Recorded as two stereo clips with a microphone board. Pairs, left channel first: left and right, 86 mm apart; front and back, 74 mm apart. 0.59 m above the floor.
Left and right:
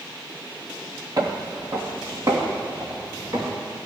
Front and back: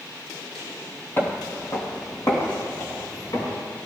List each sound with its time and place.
1.2 s footsteps: 55° right, 1.0 m; by 3.6 s 40° right, 3.5 m